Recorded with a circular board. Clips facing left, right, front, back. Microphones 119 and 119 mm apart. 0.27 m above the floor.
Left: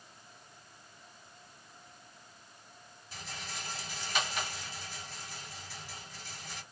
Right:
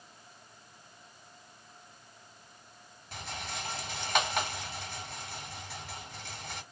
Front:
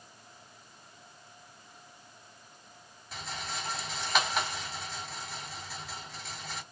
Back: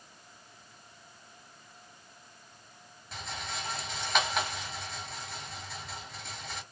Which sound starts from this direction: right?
A rattle, at 3.1 s.